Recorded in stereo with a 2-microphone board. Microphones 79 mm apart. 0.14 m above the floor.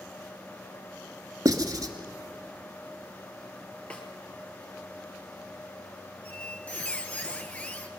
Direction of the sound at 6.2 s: 15° left (ahead or behind).